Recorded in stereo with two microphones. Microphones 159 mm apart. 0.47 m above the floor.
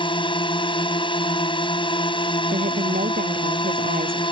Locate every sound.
0.0 s a drone: 30° left (ahead or behind)
2.5 s a woman speaking: 65° right (ahead or behind)